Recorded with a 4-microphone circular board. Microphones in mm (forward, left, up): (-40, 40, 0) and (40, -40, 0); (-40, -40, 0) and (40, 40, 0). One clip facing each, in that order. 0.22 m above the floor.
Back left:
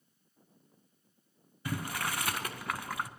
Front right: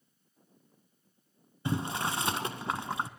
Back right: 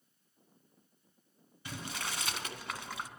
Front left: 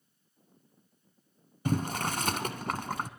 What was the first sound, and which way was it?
Boiling, 15° left.